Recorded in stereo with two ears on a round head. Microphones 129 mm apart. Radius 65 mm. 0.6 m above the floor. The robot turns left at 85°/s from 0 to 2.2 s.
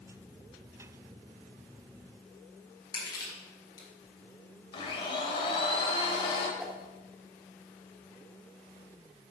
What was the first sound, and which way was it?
Crushing, 25° left (ahead or behind).